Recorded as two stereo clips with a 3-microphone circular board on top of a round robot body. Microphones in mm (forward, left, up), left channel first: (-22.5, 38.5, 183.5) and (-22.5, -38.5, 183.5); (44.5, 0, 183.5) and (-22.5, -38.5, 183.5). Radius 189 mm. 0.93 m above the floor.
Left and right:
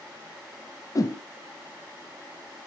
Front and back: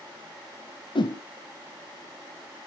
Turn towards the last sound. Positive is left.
turn(degrees=45)